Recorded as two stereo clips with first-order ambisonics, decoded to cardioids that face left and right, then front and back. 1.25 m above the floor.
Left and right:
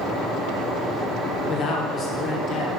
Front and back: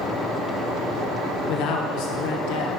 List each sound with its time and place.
1.5 s a man speaking: 30° left, 0.9 m